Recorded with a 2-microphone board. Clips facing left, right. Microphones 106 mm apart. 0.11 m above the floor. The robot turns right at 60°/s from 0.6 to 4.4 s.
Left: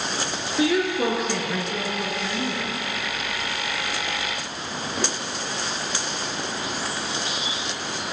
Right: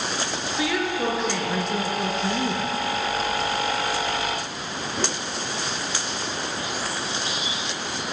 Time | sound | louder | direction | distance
0.6 | a woman speaking | left 4 dB | 130° left | 1.3 m